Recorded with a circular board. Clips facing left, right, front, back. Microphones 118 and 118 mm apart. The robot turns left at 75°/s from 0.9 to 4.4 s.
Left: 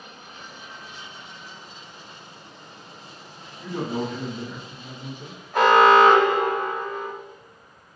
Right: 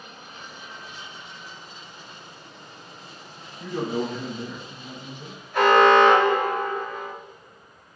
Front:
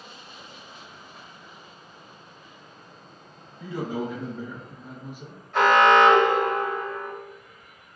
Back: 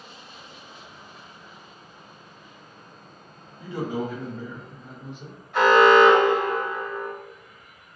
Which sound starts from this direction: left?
An alarm, at 5.5 s.